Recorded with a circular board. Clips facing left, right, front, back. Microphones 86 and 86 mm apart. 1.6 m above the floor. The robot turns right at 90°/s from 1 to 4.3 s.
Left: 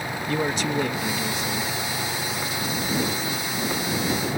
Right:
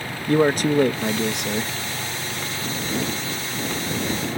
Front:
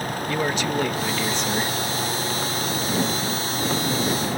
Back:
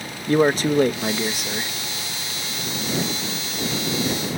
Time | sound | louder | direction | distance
0.3 | a man speaking | right 8 dB, back 8 dB | 130° right | ?